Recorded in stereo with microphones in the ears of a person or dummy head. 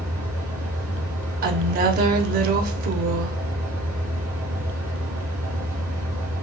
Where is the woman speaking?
50° right (ahead or behind), 1.1 m.